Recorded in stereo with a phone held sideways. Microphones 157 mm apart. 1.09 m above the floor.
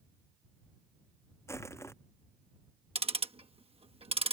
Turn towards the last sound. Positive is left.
turn(degrees=-35)  # may be behind; listen again after turning